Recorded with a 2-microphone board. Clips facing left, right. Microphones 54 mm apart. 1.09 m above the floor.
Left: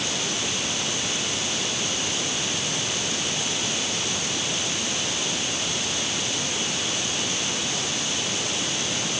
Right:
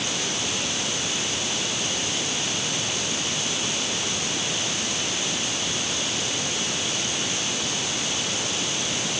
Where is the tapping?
I don't hear tapping.